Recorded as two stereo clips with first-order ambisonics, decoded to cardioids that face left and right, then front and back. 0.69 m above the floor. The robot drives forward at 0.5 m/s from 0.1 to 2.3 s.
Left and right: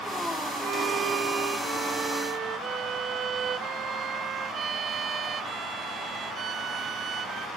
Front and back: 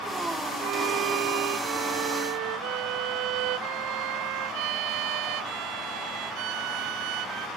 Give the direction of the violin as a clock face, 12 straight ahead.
5 o'clock.